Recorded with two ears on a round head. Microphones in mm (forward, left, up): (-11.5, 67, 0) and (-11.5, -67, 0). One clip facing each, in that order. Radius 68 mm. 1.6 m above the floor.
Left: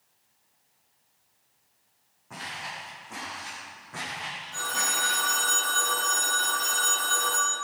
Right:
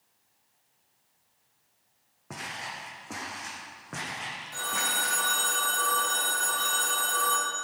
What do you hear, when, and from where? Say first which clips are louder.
2.3 s footsteps: even; 75° right (ahead or behind), 5.5 m
4.5 s a phone ringing: even; 30° right (ahead or behind), 4 m